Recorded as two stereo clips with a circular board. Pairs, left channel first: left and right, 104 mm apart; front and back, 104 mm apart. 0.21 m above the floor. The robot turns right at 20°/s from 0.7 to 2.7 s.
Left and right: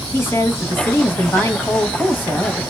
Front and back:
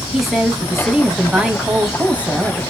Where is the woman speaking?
95° left, 1.0 m; by 2.7 s 135° left, 1.0 m.